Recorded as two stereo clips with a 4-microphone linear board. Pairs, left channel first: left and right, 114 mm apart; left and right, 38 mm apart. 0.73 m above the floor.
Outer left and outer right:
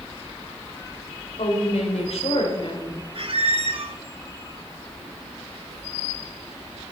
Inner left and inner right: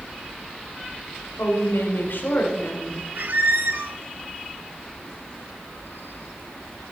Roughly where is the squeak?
Right.